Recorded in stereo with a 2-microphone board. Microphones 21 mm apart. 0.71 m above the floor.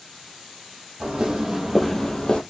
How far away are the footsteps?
About 1.2 m.